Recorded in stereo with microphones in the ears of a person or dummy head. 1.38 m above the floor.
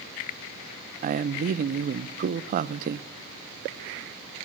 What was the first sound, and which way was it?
A man speaking, 50° right (ahead or behind).